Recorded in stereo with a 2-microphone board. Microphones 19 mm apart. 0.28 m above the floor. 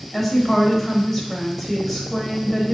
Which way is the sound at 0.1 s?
10° left (ahead or behind).